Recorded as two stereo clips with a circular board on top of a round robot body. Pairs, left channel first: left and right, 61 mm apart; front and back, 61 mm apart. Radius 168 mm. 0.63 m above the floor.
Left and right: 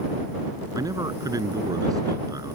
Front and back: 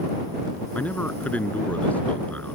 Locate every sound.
0.8 s a man speaking: 70° right